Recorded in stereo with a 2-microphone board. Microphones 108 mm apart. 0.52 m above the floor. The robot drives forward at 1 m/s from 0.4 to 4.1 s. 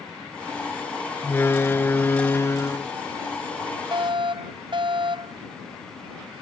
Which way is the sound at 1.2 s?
20° left (ahead or behind).